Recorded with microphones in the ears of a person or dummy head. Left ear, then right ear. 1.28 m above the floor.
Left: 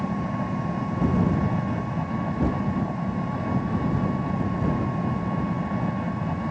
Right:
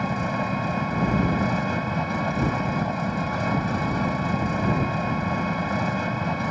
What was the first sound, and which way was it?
An engine running, 80° right.